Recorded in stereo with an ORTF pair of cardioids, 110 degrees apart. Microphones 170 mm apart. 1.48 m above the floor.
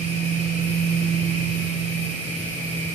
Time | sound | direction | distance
0.0 | a machine running | 40° right | 4 m